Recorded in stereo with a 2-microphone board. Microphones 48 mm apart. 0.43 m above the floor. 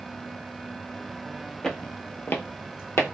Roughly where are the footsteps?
Centre.